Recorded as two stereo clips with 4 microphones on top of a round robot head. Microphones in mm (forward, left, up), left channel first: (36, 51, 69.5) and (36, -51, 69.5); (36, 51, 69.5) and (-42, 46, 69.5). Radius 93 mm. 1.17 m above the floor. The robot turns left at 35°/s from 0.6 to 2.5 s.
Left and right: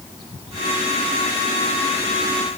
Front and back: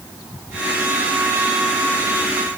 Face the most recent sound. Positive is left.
No sound to turn to.